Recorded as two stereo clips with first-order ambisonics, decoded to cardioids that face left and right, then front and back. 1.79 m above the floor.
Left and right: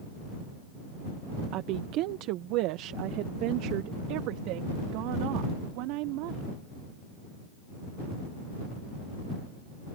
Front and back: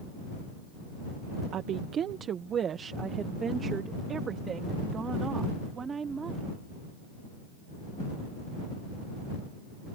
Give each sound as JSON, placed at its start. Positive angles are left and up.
{"t": 1.5, "sound": "a woman speaking", "azimuth_deg": -130}